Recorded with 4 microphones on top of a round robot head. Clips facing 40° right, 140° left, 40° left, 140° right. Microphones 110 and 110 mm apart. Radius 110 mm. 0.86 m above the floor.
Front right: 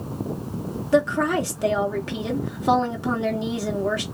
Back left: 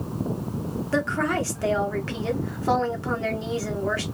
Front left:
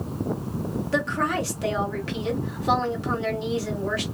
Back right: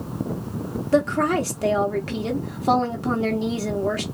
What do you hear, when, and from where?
0.9 s a woman speaking: 110° right, 0.9 m